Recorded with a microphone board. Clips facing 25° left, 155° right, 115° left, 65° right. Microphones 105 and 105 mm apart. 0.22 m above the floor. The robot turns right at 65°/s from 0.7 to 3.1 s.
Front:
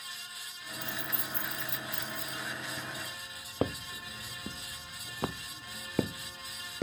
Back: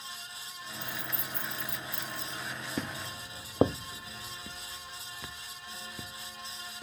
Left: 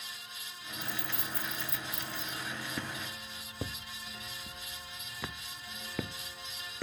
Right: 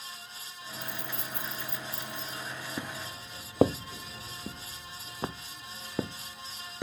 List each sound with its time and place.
0.8 s keys jangling: 90° right; by 2.4 s 15° left
2.8 s footsteps: 140° right; by 6.8 s 5° left